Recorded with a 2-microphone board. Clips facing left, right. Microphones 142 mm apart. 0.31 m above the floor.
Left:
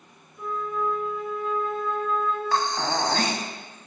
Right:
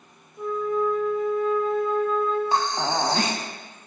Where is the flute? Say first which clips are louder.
Right 5 dB; 35° right (ahead or behind), 1.0 m.